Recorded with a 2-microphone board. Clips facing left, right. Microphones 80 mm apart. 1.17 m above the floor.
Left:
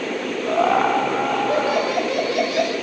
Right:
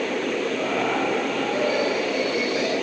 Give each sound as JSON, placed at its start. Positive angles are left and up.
{"t": 0.5, "sound": "laughter", "side_deg": 80, "distance_m": 4.0}